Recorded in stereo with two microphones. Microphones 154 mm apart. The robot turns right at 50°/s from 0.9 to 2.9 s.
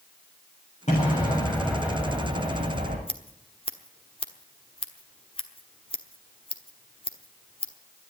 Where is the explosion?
135° left, 7.5 m; by 3.0 s 125° right, 7.5 m.